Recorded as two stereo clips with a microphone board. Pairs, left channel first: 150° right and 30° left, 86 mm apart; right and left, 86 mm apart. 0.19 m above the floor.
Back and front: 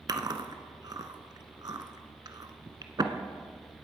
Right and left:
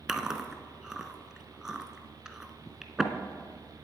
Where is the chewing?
10° left, 0.9 m.